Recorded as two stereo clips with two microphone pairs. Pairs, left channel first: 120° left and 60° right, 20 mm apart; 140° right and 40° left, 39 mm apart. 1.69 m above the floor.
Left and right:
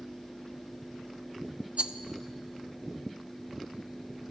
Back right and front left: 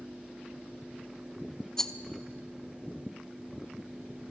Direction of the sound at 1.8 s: 65° right.